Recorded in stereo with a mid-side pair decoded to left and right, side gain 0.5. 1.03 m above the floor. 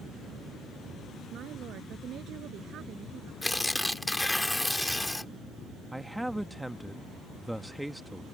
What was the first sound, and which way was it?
A woman speaking, 60° right.